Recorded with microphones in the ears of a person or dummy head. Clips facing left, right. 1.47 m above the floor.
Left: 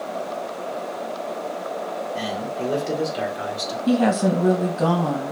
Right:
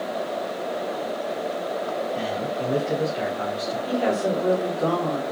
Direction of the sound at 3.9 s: 75° left (ahead or behind).